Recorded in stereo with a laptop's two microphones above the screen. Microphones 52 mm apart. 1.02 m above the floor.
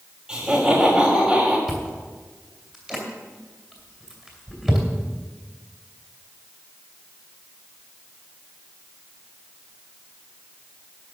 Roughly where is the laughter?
Centre.